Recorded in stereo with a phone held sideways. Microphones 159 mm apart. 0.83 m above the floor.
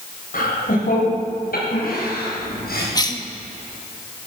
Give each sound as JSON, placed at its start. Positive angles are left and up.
{"t": 0.3, "sound": "laughter", "side_deg": 65, "distance_m": 4.0}
{"t": 3.0, "sound": "a cough", "side_deg": 25, "distance_m": 1.3}